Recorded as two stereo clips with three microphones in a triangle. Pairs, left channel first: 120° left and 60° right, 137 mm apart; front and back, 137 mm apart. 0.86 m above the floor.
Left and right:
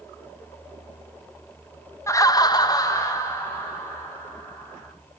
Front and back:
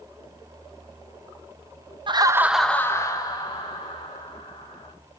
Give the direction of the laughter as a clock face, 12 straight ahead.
6 o'clock.